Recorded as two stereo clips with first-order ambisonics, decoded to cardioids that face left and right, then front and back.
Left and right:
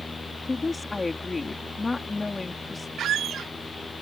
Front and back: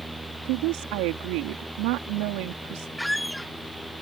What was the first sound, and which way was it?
A woman speaking, 170° left.